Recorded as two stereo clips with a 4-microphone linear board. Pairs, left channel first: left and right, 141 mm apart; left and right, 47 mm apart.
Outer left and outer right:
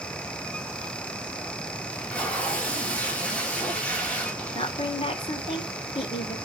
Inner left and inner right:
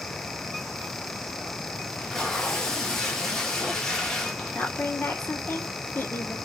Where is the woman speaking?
40° left (ahead or behind), 2.5 m.